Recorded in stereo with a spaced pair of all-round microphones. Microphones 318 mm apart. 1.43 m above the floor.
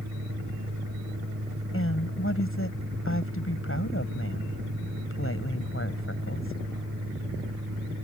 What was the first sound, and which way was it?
A fan, 60° right (ahead or behind).